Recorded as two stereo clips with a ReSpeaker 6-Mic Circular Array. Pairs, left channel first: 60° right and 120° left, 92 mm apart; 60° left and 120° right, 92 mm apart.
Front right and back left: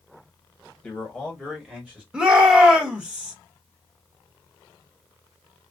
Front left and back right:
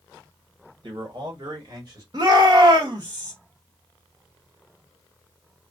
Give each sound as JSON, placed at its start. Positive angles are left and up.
{"t": 0.8, "sound": "a man speaking", "azimuth_deg": -145, "distance_m": 1.4}
{"t": 2.1, "sound": "a shout", "azimuth_deg": -160, "distance_m": 1.4}